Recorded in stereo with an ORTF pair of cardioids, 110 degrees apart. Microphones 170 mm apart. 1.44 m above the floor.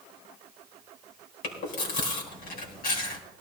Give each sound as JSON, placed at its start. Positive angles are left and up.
{"t": 1.4, "sound": "chewing", "azimuth_deg": 65, "distance_m": 4.0}